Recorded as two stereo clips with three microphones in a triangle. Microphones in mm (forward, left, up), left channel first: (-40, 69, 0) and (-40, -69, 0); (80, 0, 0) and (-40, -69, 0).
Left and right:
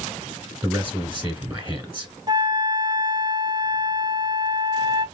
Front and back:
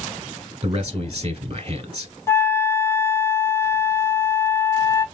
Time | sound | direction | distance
0.6 | a man speaking | 150° right | 1.4 m
2.3 | a flute | 40° right | 0.6 m